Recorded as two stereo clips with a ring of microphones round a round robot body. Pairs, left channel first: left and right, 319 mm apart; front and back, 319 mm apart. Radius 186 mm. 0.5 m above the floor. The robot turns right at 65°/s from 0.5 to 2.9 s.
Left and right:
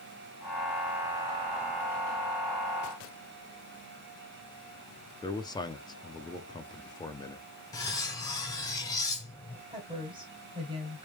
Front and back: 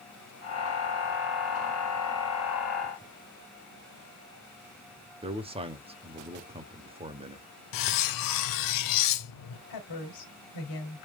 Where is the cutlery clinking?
10° left, 0.7 m.